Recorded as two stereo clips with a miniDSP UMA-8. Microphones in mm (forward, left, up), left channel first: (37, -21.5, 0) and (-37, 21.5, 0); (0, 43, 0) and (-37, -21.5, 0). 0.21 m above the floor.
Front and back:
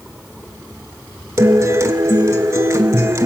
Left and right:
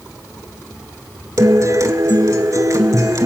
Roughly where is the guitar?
Behind.